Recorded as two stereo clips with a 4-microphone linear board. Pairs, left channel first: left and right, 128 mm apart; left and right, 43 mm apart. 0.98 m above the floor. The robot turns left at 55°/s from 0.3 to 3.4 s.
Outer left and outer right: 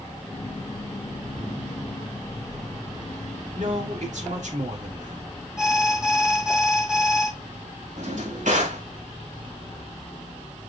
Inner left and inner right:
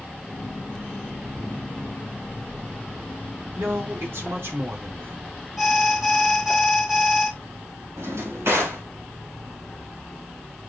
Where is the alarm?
5° right (ahead or behind), 1.4 m.